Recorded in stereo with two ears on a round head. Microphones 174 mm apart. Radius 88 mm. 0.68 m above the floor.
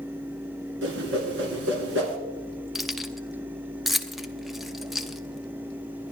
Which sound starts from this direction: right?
A whoosh, at 0.8 s.